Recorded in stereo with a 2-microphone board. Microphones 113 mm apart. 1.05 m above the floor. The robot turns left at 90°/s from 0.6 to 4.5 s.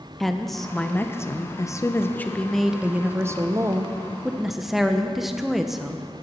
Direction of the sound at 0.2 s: Centre (ahead or behind).